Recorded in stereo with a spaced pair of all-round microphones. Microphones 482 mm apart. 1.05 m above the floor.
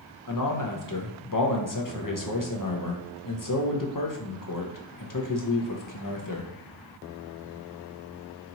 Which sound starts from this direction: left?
A man speaking, at 0.3 s.